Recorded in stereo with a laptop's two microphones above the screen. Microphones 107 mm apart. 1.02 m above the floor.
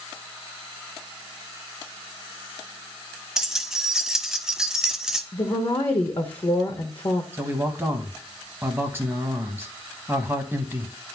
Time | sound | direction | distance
3.4 | keys jangling | 5° right (ahead or behind) | 0.6 m
5.3 | a woman speaking | 45° left (ahead or behind) | 0.8 m
7.3 | a man speaking | 20° right (ahead or behind) | 0.7 m